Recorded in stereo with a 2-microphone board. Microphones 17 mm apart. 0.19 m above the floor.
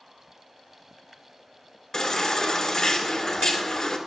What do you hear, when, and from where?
1.9 s a baby crying: 35° left (ahead or behind), 1.9 m